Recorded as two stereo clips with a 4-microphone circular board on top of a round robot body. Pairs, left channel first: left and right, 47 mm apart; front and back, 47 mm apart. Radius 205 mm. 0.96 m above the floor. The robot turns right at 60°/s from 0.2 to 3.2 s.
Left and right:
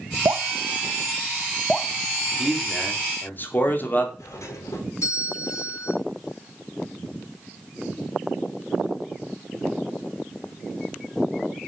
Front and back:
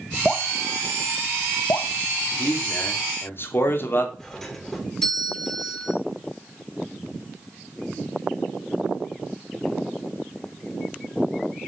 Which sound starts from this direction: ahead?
A man speaking, at 2.4 s.